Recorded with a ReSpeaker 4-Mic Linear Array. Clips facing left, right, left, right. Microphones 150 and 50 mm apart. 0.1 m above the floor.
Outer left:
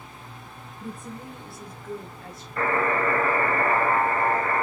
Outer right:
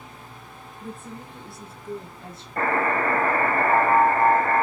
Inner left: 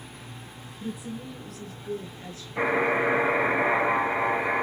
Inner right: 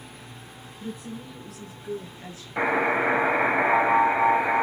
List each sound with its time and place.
0.8 s a woman speaking: 20° left (ahead or behind), 1.8 m; by 2.5 s 30° right (ahead or behind), 1.5 m
2.6 s a buzzer: 45° right (ahead or behind), 3 m